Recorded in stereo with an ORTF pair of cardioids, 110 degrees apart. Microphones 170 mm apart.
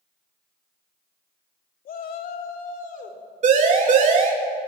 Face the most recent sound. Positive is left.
turn(degrees=-45)